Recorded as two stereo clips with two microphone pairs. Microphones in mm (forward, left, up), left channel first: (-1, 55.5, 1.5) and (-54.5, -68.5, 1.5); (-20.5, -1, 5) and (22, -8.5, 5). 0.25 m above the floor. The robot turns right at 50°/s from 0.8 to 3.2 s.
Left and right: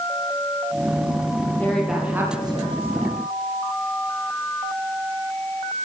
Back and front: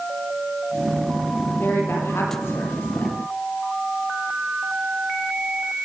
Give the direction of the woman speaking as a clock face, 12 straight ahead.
7 o'clock.